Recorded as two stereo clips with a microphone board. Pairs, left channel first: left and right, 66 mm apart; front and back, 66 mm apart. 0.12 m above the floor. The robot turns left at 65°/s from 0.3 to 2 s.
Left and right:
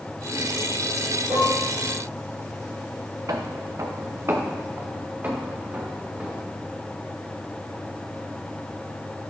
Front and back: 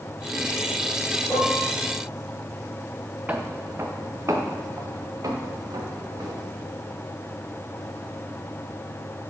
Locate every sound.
1.3 s dishes clattering: 80° right, 2 m; by 1.6 s 100° right, 2 m
3.3 s footsteps: 115° right, 0.9 m; by 6.5 s 160° right, 2 m